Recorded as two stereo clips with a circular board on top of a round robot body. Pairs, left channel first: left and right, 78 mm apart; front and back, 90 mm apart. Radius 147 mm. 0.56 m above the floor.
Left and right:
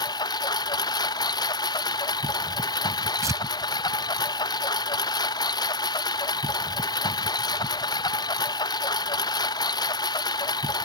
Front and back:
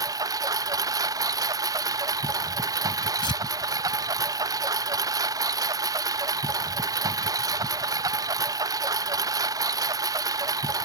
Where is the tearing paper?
40° right.